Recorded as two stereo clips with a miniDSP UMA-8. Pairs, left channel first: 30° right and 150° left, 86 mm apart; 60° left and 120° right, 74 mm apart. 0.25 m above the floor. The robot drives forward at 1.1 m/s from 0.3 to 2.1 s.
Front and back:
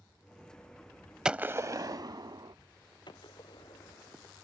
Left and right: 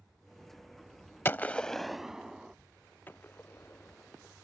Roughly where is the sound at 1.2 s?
Left.